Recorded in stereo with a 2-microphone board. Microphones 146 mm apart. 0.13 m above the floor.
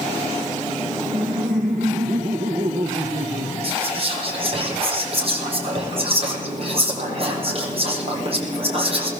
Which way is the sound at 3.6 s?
45° right (ahead or behind).